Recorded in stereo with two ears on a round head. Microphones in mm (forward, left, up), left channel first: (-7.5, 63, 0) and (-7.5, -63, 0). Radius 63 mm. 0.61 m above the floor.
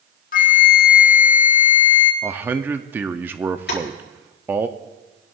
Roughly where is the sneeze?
No sneeze in this recording.